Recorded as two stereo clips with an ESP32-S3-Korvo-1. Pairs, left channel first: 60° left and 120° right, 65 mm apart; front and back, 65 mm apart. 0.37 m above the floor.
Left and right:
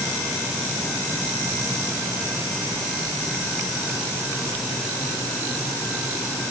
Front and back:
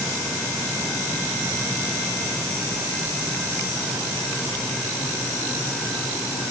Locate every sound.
Only background noise.